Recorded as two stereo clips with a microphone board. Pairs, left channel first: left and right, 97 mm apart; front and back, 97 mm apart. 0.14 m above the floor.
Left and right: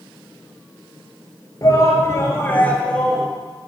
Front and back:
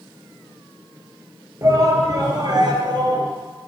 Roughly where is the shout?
Behind left.